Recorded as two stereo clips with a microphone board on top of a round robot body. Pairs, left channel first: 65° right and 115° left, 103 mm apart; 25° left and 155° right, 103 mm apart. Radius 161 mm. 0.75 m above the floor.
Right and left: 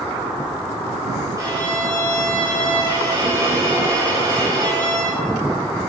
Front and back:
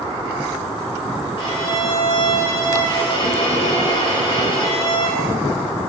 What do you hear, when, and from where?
1.4 s a violin: 55° left, 5.5 m